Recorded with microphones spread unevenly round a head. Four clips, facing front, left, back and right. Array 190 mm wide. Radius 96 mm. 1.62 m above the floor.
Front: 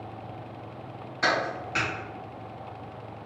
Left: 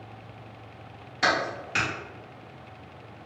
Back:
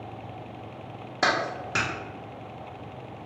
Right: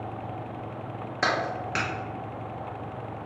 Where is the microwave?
No microwave in this recording.